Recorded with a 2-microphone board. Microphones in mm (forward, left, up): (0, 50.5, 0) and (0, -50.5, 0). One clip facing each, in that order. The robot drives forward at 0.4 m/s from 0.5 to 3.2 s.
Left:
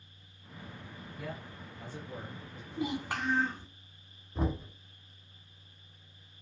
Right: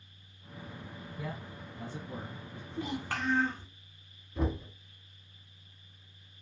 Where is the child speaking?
15° left (ahead or behind), 1.2 m.